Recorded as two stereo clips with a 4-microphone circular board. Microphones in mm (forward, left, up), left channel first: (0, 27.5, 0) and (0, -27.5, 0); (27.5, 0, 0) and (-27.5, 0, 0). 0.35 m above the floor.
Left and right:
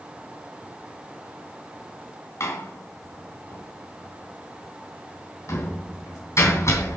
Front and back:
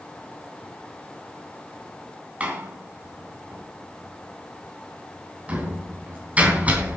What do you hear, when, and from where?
2.4 s a door slam: 115° left, 2.5 m